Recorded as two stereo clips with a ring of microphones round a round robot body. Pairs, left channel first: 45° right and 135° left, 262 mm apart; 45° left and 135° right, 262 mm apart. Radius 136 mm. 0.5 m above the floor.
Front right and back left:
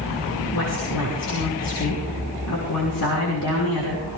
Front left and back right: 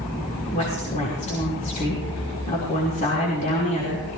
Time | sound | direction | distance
0.5 | a woman speaking | 15° right | 5.5 m